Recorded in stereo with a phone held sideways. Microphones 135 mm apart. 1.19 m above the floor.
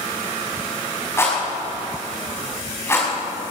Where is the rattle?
20° left (ahead or behind), 5 m.